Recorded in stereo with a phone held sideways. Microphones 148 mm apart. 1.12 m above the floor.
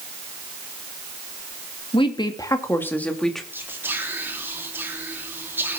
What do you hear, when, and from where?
1.9 s a woman speaking: 35° left (ahead or behind), 1.9 m; by 3.4 s centre (ahead or behind), 2 m
3.5 s whispering: 15° right (ahead or behind), 2.5 m